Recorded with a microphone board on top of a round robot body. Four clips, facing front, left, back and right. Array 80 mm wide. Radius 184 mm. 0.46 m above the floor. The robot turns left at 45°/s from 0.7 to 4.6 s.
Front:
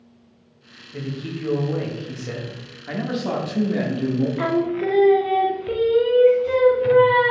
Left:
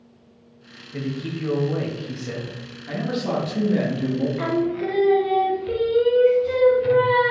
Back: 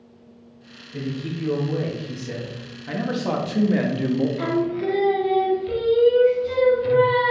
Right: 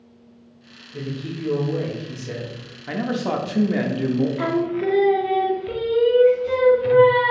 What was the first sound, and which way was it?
A man speaking, 90° left.